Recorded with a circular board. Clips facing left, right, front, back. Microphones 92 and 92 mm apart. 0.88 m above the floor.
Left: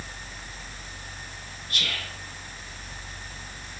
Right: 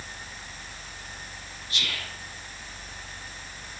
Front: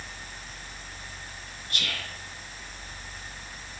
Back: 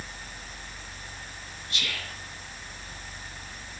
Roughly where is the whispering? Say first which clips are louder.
Left 1 dB, front 1 dB; ahead left.